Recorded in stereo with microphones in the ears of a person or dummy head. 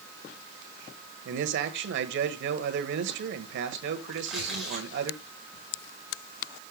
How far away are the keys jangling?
No keys jangling in this recording.